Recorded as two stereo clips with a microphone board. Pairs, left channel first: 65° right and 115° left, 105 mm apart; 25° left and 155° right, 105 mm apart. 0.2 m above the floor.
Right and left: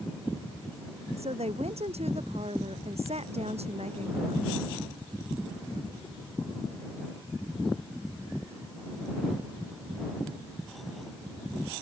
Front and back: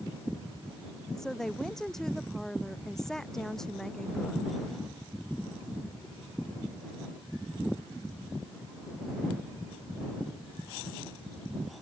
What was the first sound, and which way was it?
A woman speaking, 110° left.